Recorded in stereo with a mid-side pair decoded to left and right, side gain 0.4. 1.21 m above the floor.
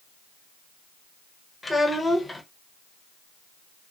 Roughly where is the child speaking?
Ahead left.